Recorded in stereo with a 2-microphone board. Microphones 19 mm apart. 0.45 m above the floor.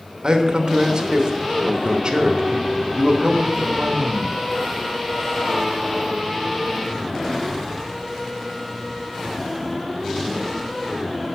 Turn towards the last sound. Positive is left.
turn(degrees=-50)  # may be behind; listen again after turning